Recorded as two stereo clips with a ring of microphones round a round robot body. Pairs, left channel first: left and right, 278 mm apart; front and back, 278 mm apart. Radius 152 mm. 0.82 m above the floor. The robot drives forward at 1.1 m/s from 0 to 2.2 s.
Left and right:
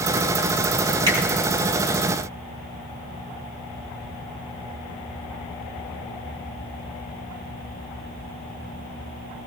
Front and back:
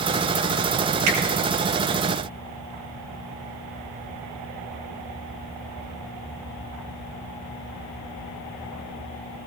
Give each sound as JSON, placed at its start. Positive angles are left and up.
{"t": 1.1, "sound": "a finger snap", "azimuth_deg": -165, "distance_m": 9.5}